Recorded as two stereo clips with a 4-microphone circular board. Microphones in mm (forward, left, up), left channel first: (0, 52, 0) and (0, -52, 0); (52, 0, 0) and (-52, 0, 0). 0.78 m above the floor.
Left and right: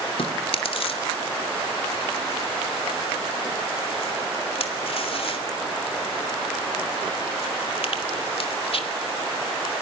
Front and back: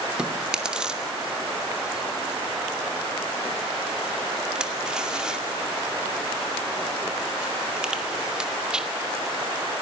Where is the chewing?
100° left, 2.5 m.